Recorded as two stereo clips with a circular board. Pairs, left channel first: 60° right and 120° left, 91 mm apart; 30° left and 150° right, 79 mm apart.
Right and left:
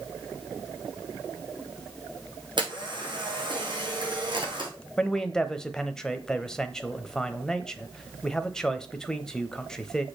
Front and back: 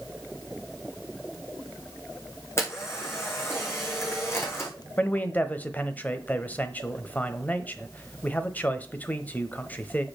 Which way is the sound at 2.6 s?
85° left.